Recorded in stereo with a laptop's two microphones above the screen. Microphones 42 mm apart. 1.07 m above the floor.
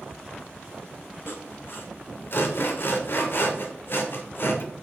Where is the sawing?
55° left (ahead or behind), 1.5 m.